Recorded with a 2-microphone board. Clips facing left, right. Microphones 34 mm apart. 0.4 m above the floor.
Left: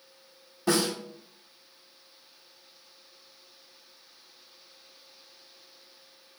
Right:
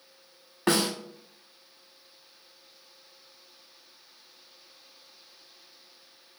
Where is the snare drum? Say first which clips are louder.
Right 1 dB; 60° right (ahead or behind), 0.7 m.